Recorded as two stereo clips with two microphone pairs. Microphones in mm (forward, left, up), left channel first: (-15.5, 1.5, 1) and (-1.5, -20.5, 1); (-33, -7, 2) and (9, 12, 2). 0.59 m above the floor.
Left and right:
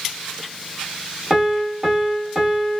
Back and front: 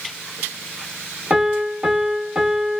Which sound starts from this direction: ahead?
A piano, at 1.3 s.